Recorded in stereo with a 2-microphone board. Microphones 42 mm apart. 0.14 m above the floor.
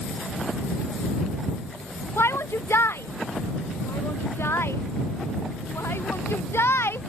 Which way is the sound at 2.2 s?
80° left.